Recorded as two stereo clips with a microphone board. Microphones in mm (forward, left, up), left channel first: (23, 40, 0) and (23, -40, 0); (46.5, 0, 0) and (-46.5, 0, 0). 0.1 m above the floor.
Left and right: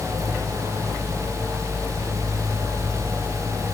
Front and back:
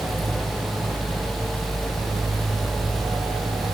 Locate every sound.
Only background noise.